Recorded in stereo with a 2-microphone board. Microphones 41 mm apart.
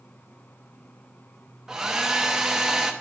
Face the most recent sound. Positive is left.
turn(degrees=-15)  # may be behind; listen again after turning